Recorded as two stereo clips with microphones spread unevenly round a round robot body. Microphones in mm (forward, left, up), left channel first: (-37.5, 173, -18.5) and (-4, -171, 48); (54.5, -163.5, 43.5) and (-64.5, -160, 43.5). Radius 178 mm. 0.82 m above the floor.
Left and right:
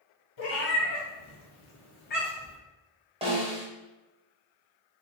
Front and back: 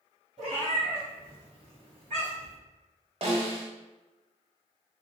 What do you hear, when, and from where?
0.4 s a cat meowing: 125° left, 1.7 m; by 2.6 s 175° left, 1.2 m
3.2 s a snare drum: 150° right, 0.9 m